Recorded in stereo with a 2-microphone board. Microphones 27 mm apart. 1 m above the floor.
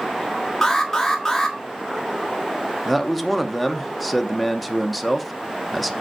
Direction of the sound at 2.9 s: 5° right (ahead or behind).